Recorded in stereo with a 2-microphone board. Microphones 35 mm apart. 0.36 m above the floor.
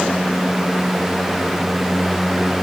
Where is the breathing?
I don't hear breathing.